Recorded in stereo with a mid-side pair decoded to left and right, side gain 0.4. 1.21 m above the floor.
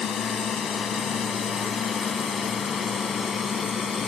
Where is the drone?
65° left; by 4.1 s 55° left.